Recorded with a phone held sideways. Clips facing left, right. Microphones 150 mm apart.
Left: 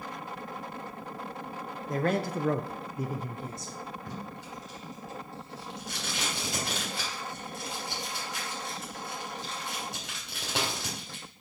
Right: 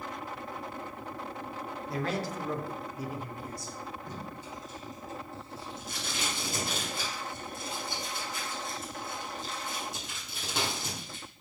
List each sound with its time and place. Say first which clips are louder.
1.9 s a man speaking: left 5 dB; 45° left (ahead or behind), 1.0 m; by 3.7 s 20° left (ahead or behind), 1.0 m
4.1 s tape being pulled: left 1 dB; 75° left (ahead or behind), 3 m